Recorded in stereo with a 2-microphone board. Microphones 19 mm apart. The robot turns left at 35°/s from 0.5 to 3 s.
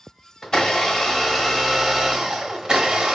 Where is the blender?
45° left, 1.0 m; by 3.1 s 45° right, 1.0 m.